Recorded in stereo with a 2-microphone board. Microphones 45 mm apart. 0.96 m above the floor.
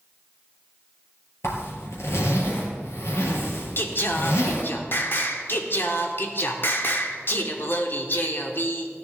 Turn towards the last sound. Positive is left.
turn(degrees=50)  # may be behind; listen again after turning